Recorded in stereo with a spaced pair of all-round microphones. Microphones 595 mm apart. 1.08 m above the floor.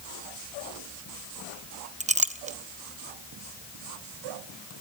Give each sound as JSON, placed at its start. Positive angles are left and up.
{"t": 2.0, "sound": "a clink", "side_deg": -15, "distance_m": 0.6}